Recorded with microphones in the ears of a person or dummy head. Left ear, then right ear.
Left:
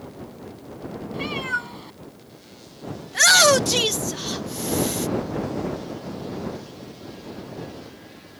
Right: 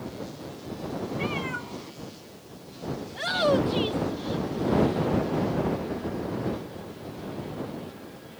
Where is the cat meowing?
30° left (ahead or behind).